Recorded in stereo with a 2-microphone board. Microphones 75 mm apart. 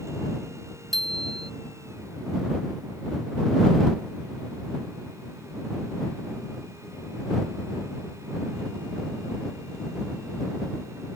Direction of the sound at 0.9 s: 5° left (ahead or behind).